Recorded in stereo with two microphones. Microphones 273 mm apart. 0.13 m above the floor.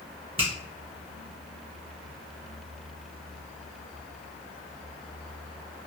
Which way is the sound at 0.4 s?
20° right (ahead or behind).